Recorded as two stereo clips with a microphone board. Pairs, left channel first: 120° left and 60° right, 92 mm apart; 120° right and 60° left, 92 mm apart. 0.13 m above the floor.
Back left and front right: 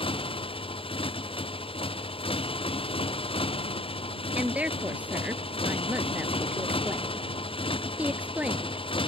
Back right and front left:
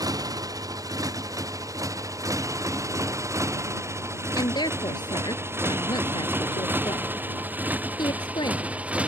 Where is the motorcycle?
110° left; by 9.1 s 135° left.